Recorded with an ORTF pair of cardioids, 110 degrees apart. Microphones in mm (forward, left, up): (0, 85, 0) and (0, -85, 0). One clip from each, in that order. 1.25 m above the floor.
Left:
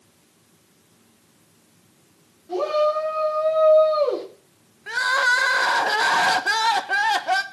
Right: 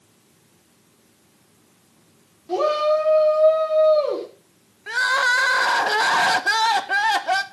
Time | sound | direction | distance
2.5 | a shout | 35° right | 4 m
4.9 | crying | 5° right | 1.0 m